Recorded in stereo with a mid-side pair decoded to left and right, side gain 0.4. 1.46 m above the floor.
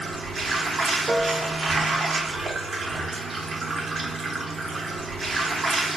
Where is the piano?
25° right, 0.5 m.